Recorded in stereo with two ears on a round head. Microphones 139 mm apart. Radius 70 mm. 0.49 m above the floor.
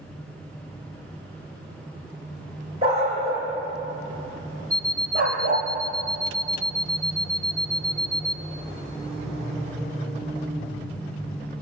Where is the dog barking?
40° right (ahead or behind), 7.5 m; by 5.7 s 60° right (ahead or behind), 4.5 m.